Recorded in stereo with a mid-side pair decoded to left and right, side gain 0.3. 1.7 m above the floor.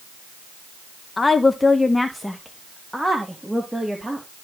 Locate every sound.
1.2 s a woman speaking: 40° left, 1.6 m; by 4.3 s 15° right, 3.5 m